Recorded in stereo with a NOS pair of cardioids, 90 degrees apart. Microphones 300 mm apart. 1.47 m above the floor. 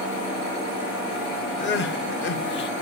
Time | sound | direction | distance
1.6 | crying | 40° left | 0.6 m